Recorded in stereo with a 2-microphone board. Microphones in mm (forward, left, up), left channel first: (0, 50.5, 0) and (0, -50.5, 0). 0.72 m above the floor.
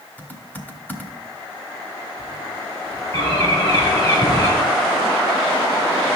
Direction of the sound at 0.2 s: 15° left (ahead or behind).